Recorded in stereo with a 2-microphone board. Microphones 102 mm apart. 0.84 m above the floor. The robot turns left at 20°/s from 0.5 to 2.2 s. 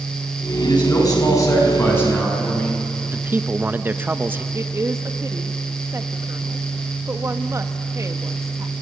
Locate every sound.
0.6 s a man speaking: 45° left, 6.5 m; by 2.8 s 15° left, 6.5 m
3.0 s a man speaking: 20° right (ahead or behind), 0.8 m
4.5 s a woman speaking: 30° right (ahead or behind), 1.2 m